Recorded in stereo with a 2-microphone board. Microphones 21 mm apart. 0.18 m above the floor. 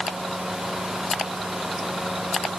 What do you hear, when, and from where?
Only background noise.